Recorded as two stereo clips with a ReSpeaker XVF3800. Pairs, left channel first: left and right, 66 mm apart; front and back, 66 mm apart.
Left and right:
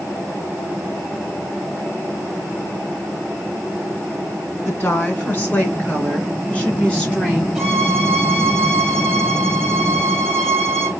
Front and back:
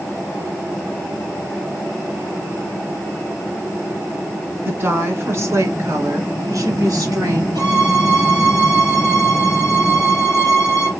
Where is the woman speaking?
130° left, 2.0 m; by 7.5 s 165° left, 3.5 m.